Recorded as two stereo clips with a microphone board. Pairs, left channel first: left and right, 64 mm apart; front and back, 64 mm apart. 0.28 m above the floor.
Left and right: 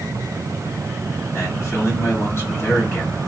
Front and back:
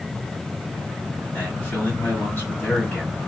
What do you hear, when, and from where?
1.3 s a man speaking: 50° left, 2 m